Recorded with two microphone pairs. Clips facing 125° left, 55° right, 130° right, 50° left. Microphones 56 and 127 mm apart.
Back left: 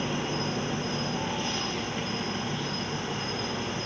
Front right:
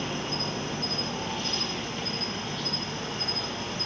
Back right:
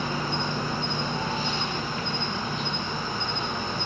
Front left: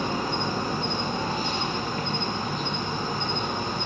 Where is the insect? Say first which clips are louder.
Back left 2 dB, front left 2 dB; 60° left, 2.5 m.